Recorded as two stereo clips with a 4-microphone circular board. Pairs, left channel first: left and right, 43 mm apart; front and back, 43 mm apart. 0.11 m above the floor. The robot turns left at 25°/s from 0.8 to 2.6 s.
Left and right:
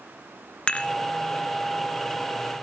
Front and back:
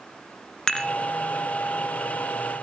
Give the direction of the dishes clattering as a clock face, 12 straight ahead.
10 o'clock.